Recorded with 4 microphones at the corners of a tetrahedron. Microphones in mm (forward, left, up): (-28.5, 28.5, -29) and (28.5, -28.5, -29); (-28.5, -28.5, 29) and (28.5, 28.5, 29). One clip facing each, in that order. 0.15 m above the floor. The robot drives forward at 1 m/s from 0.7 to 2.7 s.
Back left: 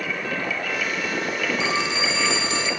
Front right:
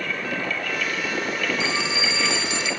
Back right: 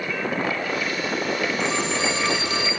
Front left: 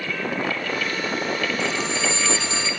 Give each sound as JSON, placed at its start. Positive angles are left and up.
{"t": 1.6, "sound": "a phone ringing", "azimuth_deg": 180, "distance_m": 4.0}